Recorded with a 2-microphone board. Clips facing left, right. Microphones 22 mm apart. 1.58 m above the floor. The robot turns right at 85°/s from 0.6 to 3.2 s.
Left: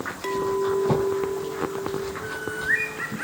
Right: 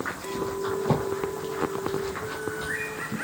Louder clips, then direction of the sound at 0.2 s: Left 8 dB; 85° left.